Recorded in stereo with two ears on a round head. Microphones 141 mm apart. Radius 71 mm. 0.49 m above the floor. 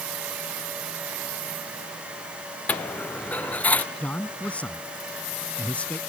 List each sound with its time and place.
2.7 s a dropped coin: 10° left (ahead or behind)
4.0 s a man speaking: 10° left (ahead or behind)